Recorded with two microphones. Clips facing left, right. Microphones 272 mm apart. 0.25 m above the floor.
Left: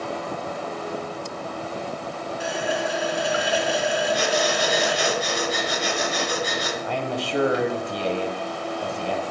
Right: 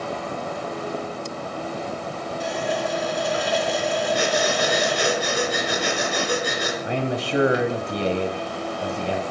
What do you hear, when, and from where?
2.4 s a running tap: 10° left (ahead or behind), 1.6 m
4.1 s breathing: 65° right (ahead or behind), 4.5 m
6.8 s a man speaking: 20° right (ahead or behind), 1.0 m